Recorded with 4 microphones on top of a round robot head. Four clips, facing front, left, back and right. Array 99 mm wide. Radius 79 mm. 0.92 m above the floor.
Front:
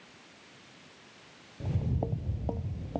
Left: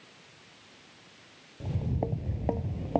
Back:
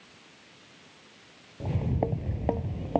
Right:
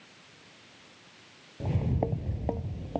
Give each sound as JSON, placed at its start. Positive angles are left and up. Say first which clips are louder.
{"t": 1.6, "sound": "footsteps", "louder": "right 3 dB, back 5 dB", "azimuth_deg": -135}